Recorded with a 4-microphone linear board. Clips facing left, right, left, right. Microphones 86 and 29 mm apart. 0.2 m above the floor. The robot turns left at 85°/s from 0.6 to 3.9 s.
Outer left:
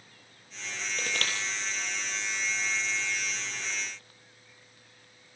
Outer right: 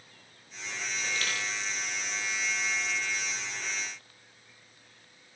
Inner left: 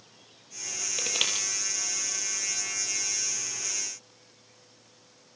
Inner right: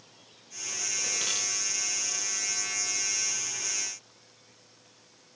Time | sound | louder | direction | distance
1.0 | crushing | outer left 1 dB, inner left 5 dB | 75° left (ahead or behind) | 6 m